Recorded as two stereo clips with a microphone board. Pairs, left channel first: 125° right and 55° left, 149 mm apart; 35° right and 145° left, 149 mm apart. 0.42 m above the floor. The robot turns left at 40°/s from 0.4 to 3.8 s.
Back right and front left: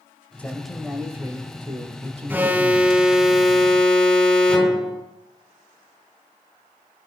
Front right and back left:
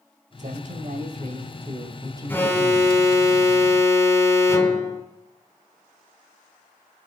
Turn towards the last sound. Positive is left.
turn(degrees=-50)